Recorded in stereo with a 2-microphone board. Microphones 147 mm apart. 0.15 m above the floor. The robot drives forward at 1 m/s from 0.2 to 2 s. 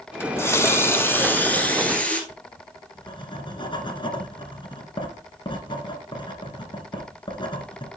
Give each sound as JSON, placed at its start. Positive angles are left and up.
{"t": 0.2, "sound": "a running tap", "side_deg": 15, "distance_m": 0.9}
{"t": 2.3, "sound": "writing", "side_deg": 35, "distance_m": 1.6}